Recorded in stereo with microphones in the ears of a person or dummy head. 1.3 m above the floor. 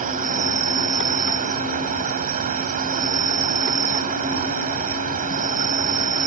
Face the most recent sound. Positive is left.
turn(degrees=-40)  # may be behind; listen again after turning